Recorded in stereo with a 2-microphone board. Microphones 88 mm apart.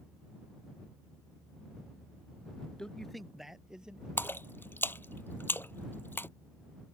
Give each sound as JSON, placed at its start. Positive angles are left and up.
{"t": 2.8, "sound": "a man speaking", "side_deg": 10}
{"t": 4.2, "sound": "a splash", "side_deg": 25}